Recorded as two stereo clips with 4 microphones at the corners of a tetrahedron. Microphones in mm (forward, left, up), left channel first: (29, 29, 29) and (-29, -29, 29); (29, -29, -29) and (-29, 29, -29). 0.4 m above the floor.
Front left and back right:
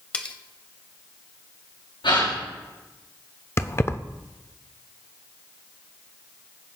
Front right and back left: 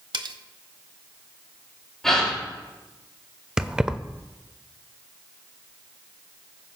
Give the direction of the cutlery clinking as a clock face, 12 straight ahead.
8 o'clock.